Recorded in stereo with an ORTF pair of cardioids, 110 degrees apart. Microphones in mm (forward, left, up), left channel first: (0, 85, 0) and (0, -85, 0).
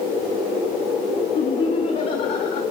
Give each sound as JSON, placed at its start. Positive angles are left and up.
{"t": 1.4, "sound": "laughter", "azimuth_deg": 45, "distance_m": 2.5}